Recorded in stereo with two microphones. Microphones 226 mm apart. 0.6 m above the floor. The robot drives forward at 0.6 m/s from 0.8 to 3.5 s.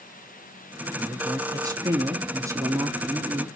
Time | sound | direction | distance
1.0 | a man speaking | 15° right (ahead or behind) | 1.2 m